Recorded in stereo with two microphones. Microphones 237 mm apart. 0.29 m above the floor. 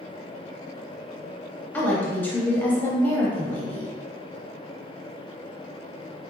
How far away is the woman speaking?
About 1.1 m.